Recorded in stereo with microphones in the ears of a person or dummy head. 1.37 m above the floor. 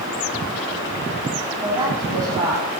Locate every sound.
1.6 s a woman speaking: 20° right (ahead or behind), 8.5 m; by 2.7 s 25° right (ahead or behind), 8 m